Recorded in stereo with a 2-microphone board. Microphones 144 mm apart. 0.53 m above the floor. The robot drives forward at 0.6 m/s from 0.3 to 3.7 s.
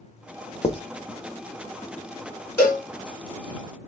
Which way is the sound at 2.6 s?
15° left (ahead or behind).